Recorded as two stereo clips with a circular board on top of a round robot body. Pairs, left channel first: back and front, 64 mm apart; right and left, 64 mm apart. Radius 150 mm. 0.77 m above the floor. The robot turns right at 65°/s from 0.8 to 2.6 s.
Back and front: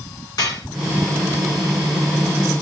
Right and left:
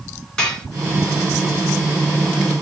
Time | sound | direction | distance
0.4 | dishes clattering | 165° right | 2.5 m